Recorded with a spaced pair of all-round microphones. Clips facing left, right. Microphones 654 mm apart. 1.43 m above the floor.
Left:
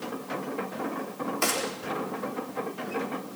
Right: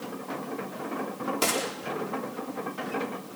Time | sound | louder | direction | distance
1.4 | a gunshot | right 2 dB | 60° right (ahead or behind) | 4.5 m